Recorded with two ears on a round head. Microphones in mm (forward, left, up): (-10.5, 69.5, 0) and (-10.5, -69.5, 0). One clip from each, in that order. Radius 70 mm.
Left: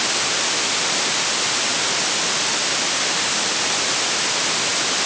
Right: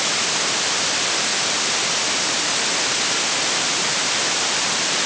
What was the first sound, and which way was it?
Only background noise.